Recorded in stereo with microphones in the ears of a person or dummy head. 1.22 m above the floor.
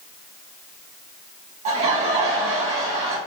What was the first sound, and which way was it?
Laughter, 40° right (ahead or behind).